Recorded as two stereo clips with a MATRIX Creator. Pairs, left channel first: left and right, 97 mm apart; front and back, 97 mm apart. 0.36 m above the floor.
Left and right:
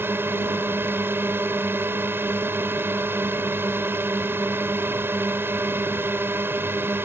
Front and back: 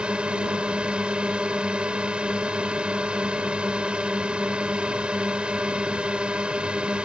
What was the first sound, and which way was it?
A drone, 115° right.